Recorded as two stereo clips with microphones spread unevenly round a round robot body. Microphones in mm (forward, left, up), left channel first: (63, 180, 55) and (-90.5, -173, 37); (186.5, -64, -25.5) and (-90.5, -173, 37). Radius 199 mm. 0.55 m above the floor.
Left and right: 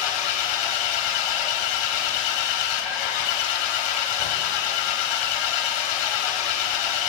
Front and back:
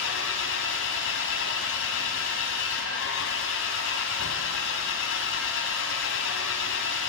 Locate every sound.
0.0 s an engine running: 80° left, 2.5 m